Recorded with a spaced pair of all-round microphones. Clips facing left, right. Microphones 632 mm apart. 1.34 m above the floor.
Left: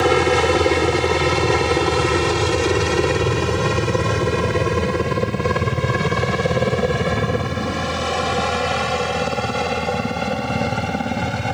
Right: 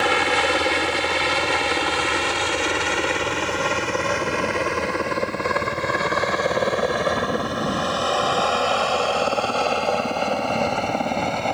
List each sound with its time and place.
0.0 s a helicopter: 75° left (ahead or behind); by 11.6 s 45° left (ahead or behind)